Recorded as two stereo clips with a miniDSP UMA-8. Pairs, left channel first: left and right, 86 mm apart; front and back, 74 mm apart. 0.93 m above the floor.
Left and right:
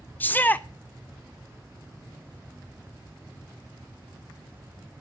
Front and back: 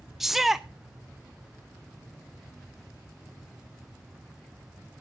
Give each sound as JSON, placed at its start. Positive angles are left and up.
{"t": 0.2, "sound": "a shout", "azimuth_deg": 95, "distance_m": 0.5}